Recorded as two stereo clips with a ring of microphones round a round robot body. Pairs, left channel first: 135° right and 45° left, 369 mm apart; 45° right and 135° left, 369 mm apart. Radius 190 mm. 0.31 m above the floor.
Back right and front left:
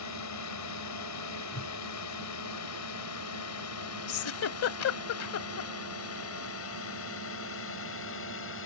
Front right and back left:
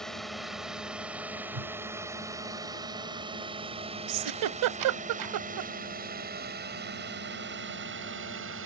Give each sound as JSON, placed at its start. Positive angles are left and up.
{"t": 0.0, "sound": "a drone", "azimuth_deg": -135}
{"t": 1.5, "sound": "a whoosh", "azimuth_deg": 165}
{"t": 4.1, "sound": "a giggle", "azimuth_deg": 175}